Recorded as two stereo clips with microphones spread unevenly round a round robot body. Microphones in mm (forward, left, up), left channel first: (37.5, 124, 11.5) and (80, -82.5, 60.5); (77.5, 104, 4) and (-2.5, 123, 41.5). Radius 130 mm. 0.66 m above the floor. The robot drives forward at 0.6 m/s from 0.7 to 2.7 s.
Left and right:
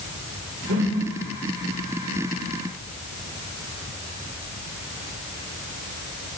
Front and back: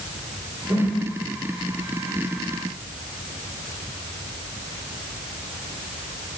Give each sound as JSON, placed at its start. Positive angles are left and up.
{"t": 0.7, "sound": "a whoosh", "azimuth_deg": -120, "distance_m": 1.8}